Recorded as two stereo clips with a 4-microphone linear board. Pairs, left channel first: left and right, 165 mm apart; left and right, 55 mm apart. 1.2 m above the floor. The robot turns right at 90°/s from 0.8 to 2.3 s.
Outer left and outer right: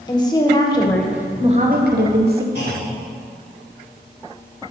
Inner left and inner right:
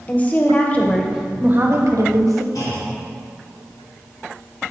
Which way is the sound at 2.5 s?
75° left (ahead or behind).